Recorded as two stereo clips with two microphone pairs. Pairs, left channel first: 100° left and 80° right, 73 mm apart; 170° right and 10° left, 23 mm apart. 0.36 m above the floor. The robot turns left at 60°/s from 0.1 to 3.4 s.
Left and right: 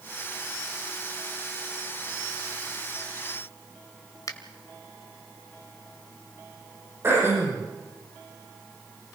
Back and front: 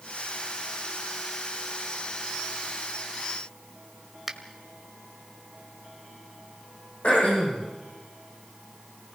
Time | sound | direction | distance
4.3 | a finger snap | 95° left | 1.7 m
7.0 | throat clearing | 135° right | 9 m